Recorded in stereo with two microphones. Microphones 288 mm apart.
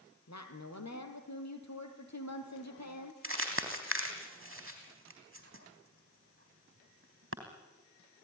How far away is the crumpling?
About 3.5 m.